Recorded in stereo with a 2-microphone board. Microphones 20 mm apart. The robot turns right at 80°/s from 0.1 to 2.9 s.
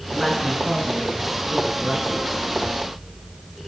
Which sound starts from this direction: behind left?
A woman speaking, at 0.1 s.